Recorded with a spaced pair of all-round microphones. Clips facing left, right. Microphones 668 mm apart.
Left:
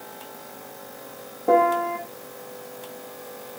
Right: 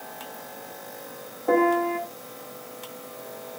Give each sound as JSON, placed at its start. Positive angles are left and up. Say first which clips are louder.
{"t": 1.5, "sound": "a piano", "louder": "even", "side_deg": 55, "distance_m": 1.8}